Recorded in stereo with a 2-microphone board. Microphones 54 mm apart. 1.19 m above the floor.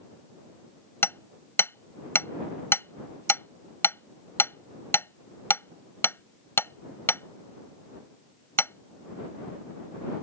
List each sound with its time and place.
1.0 s hammering: 50° left (ahead or behind)